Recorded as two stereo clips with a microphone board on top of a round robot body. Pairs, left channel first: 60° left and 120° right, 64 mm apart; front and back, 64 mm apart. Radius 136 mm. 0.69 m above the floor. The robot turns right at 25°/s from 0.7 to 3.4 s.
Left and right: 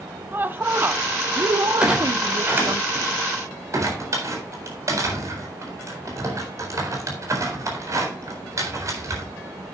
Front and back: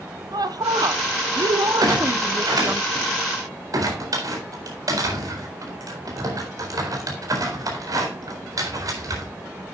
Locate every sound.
0.3 s a woman speaking: straight behind, 1.3 m; by 2.8 s 125° right, 1.3 m
1.8 s a clunk: 165° left, 4 m; by 9.2 s 155° right, 4 m